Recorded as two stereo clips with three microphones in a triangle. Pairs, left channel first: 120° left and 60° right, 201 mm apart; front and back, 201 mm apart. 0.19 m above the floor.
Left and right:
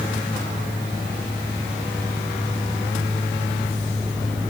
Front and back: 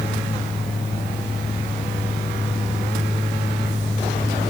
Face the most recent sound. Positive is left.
No sound to turn to.